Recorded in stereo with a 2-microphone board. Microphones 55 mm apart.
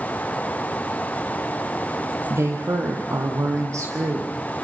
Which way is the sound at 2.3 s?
60° right (ahead or behind).